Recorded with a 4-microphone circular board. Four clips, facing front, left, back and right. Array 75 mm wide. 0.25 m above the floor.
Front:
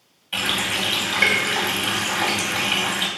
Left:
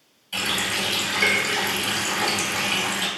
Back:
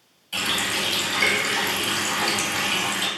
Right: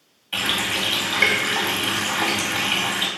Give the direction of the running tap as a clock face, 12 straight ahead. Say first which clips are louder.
Right 2 dB, front 2 dB; 2 o'clock.